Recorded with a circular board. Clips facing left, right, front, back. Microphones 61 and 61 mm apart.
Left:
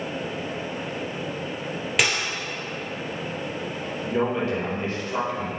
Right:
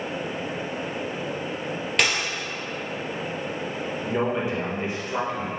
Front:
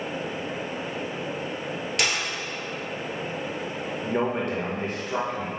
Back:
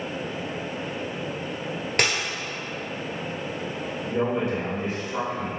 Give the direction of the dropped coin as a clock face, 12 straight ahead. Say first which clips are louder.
Even, back 3 dB; 6 o'clock.